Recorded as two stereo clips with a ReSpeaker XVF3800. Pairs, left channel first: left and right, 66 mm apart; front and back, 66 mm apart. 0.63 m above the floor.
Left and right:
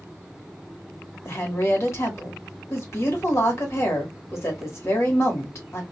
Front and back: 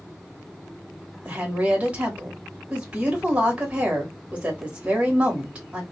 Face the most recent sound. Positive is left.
turn(degrees=115)